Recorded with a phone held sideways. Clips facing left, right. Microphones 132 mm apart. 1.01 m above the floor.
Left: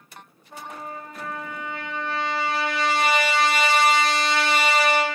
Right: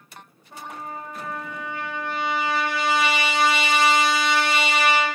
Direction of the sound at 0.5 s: 5° right (ahead or behind).